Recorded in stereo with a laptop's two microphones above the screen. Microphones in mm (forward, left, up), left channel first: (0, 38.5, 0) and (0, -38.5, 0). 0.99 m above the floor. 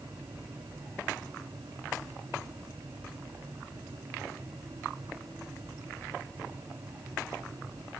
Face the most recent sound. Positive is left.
turn(degrees=-60)  # may be behind; listen again after turning